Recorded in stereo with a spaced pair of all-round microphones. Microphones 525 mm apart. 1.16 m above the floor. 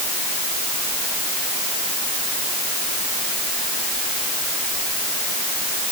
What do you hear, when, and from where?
Only background noise.